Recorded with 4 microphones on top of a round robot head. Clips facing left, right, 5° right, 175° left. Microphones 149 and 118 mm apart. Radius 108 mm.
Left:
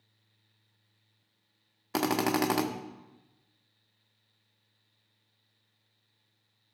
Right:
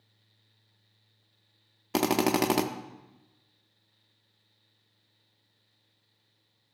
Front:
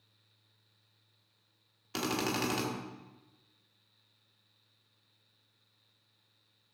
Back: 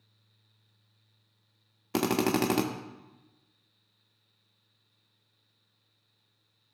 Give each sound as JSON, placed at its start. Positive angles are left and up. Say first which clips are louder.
{"t": 1.9, "sound": "a drill", "louder": "right 3 dB, back 7 dB", "azimuth_deg": -155, "distance_m": 0.7}